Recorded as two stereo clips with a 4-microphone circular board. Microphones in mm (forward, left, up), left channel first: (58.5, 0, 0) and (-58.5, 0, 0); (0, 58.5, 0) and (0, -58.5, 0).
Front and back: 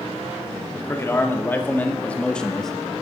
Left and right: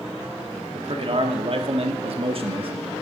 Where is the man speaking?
65° right, 2 m; by 2.7 s 85° right, 1.4 m.